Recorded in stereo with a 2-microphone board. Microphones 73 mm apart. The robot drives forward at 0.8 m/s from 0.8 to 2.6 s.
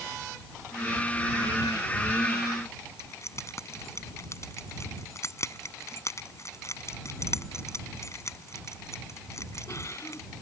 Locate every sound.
3.0 s keys jangling: 45° left (ahead or behind)